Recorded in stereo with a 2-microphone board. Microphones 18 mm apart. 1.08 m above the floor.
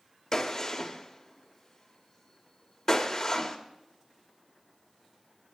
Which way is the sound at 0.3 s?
25° left (ahead or behind).